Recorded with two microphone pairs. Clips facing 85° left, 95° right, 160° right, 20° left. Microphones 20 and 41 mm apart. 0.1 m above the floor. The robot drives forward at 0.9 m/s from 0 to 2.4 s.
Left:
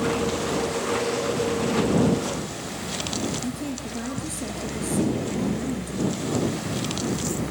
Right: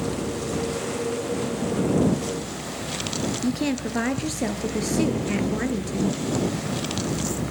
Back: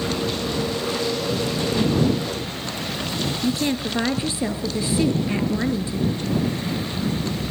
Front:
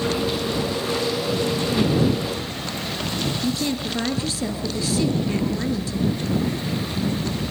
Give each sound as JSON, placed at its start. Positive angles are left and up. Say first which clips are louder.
{"t": 3.4, "sound": "a woman speaking", "louder": "right 6 dB, back 2 dB", "azimuth_deg": -105, "distance_m": 2.5}